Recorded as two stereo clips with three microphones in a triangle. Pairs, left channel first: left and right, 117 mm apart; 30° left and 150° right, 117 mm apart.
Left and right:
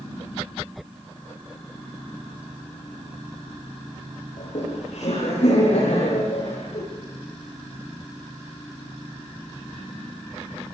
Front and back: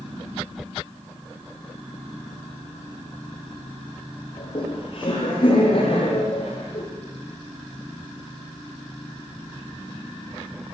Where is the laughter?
70° left, 9 m; by 6.8 s 65° left, 12 m.